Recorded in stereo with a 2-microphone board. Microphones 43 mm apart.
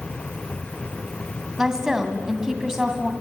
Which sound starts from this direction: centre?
A woman speaking, at 1.6 s.